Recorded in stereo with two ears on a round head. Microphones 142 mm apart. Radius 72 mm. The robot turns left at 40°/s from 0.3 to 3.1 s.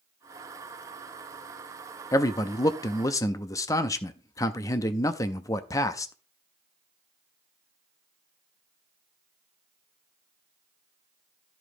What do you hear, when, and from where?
2.1 s a man speaking: 20° left (ahead or behind), 0.5 m